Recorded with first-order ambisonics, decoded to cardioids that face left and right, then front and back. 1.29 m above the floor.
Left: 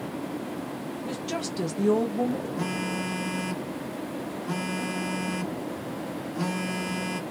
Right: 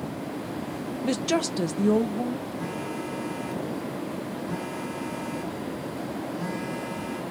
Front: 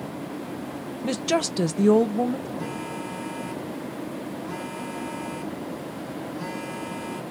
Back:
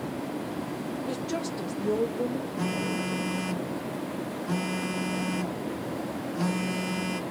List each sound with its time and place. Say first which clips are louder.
1.0 s a woman speaking: right 8 dB, front 10 dB; 40° right, 0.8 m; by 2.5 s 25° left, 1.1 m
2.6 s a phone buzzing: left 2 dB, back 2 dB; 130° left, 1.1 m